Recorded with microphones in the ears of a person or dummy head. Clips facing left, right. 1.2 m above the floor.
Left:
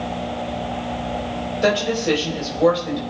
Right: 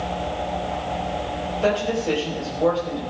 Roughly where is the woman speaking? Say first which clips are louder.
Left 2 dB; left.